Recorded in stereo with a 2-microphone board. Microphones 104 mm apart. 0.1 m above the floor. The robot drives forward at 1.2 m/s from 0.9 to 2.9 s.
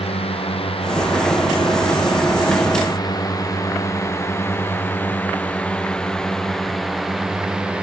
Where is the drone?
70° left (ahead or behind); by 7.8 s 10° right (ahead or behind).